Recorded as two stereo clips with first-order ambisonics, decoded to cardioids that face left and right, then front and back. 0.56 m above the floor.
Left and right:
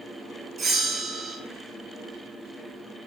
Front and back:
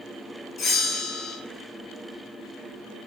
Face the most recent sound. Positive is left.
turn(degrees=-35)